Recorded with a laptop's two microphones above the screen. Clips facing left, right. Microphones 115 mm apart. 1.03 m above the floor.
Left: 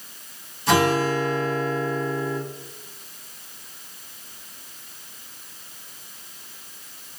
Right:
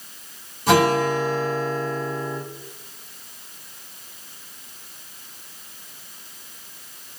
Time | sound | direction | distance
0.7 | a guitar | 60° right (ahead or behind) | 1.8 m